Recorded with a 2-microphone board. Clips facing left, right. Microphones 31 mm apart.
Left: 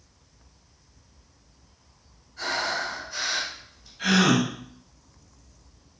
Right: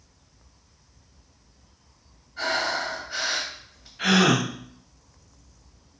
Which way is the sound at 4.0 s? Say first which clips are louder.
Right 1 dB; 50° right (ahead or behind).